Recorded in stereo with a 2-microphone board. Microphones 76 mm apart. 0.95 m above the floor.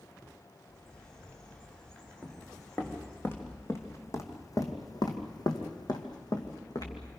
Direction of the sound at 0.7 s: 10° left (ahead or behind).